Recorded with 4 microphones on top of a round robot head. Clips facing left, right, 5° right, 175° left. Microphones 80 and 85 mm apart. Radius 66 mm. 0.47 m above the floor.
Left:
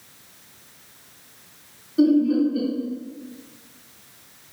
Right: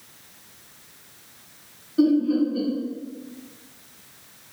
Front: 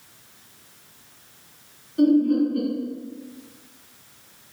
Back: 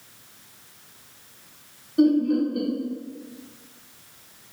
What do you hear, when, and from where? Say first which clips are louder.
2.0 s laughter: left 2 dB, front 1 dB; 175° left, 1.4 m